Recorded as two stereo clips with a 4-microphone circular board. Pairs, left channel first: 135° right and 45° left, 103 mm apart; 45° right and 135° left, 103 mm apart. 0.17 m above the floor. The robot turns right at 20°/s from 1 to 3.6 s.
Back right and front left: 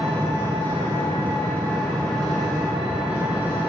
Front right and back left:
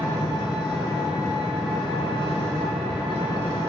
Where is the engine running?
75° right, 1.0 m; by 3.7 s 20° right, 1.0 m.